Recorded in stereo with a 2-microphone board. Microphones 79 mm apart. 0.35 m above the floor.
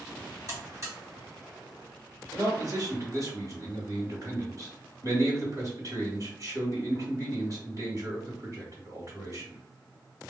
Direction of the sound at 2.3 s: 45° right (ahead or behind).